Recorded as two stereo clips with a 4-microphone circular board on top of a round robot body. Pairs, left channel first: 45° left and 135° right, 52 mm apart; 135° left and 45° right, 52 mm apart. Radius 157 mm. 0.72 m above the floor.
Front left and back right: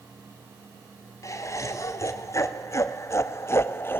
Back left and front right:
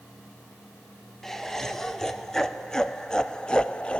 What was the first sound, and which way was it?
Laughter, 55° left.